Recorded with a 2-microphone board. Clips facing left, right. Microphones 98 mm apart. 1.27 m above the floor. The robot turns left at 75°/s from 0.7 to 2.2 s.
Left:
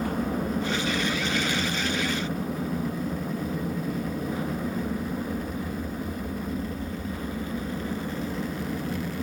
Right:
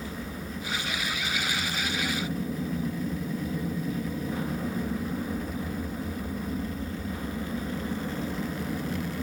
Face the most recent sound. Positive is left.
turn(degrees=5)